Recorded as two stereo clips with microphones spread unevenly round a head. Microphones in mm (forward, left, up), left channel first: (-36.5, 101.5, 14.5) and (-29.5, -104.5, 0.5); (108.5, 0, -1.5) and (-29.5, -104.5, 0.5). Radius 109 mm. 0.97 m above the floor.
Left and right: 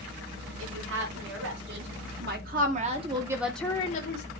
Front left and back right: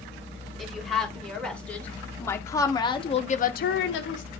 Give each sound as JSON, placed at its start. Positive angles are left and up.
{"t": 0.6, "sound": "a woman speaking", "azimuth_deg": -50, "distance_m": 4.0}